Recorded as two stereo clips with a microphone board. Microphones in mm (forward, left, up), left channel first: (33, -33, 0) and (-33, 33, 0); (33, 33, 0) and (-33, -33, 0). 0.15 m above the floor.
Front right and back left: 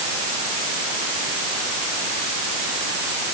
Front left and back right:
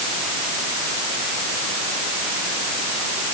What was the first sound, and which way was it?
Only background noise.